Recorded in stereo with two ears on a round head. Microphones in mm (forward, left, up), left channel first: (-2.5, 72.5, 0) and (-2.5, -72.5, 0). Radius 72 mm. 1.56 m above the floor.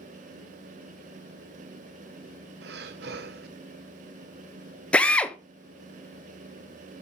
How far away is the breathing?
About 1.1 m.